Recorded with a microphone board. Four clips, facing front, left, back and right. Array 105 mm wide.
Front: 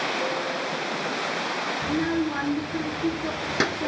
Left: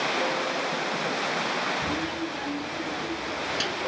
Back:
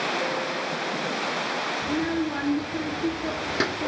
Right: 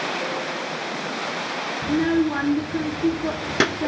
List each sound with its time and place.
1.8 s a child speaking: 75° right, 1.0 m